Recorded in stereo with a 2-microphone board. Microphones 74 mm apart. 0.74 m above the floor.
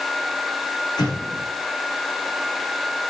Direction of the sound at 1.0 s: 80° left.